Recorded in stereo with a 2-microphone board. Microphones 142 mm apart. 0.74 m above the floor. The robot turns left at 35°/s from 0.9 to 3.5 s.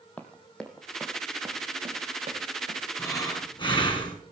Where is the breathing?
15° left (ahead or behind), 4.5 m; by 4.2 s 35° left (ahead or behind), 4.5 m.